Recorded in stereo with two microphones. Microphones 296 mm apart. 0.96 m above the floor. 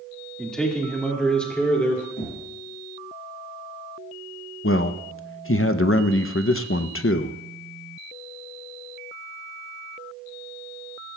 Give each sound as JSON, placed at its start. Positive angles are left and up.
{"t": 0.4, "sound": "a man speaking", "side_deg": 0, "distance_m": 1.8}
{"t": 2.2, "sound": "knocking", "side_deg": 45, "distance_m": 6.0}
{"t": 4.6, "sound": "a man speaking", "side_deg": 45, "distance_m": 0.6}